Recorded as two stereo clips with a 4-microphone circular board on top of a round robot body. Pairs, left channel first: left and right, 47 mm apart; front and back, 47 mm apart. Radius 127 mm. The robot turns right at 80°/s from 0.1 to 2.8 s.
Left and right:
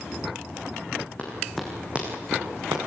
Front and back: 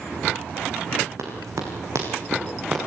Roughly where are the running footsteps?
Behind left.